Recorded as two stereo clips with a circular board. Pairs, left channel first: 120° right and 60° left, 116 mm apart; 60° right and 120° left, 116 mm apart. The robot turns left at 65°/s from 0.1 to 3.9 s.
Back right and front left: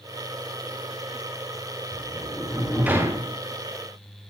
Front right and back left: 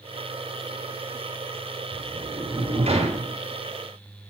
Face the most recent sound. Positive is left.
turn(degrees=65)